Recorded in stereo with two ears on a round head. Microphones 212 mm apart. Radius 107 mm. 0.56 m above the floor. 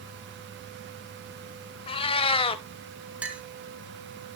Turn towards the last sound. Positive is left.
turn(degrees=-5)  # may be behind; listen again after turning